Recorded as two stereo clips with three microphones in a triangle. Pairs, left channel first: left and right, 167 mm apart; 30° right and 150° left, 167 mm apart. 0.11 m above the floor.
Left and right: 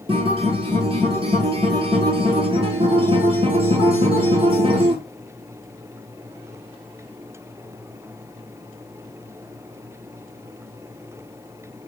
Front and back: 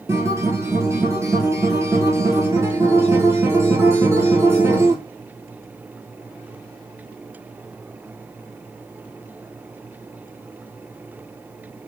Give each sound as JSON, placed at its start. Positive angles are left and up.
{"t": 0.1, "sound": "a guitar", "azimuth_deg": -140, "distance_m": 0.9}